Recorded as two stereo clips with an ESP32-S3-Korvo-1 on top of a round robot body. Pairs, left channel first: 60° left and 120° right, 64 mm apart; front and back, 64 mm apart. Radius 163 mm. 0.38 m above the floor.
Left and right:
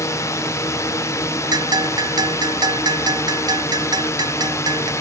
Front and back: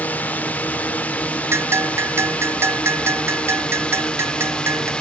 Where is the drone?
60° left; by 5.0 s 75° left.